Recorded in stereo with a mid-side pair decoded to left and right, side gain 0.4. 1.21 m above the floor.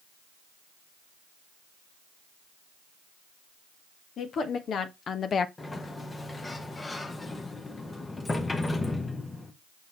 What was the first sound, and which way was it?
A woman speaking, 65° left.